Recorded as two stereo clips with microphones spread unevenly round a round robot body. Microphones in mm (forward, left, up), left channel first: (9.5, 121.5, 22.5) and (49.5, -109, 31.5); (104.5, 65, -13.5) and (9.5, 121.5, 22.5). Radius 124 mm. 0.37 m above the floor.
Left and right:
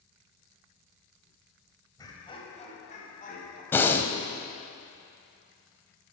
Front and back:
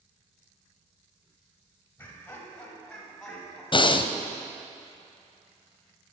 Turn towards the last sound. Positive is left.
turn(degrees=20)